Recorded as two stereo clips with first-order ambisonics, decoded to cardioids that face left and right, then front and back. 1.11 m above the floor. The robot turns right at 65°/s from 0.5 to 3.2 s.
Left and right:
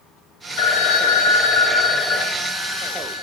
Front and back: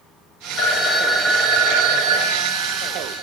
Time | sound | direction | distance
0.6 | a phone ringing | 55° left | 0.7 m